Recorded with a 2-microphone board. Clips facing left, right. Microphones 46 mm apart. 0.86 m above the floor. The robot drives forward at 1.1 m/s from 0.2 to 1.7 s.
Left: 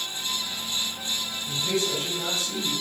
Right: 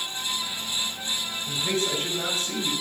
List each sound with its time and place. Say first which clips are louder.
1.5 s a man speaking: even; 40° right (ahead or behind), 3.5 m